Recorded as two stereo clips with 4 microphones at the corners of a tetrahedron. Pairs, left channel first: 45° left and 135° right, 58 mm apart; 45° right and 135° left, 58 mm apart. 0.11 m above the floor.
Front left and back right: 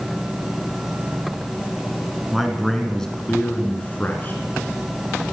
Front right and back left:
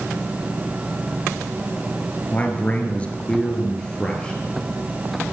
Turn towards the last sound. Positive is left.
turn(degrees=20)